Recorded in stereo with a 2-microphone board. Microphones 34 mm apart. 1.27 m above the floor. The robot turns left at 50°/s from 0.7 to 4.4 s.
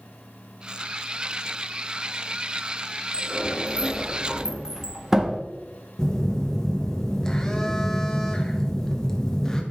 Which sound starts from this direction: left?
A sliding door, at 3.1 s.